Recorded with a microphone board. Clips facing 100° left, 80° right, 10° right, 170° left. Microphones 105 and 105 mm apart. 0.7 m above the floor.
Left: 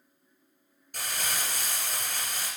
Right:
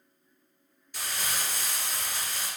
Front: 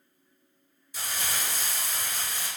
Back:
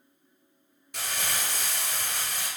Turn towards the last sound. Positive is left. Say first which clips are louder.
# even, back 1 dB
turn(degrees=145)